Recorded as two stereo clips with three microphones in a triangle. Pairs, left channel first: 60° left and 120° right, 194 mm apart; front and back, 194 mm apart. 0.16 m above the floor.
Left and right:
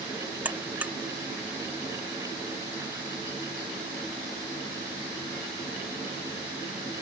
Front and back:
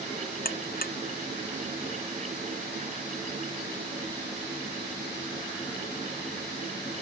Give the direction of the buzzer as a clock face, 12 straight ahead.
1 o'clock.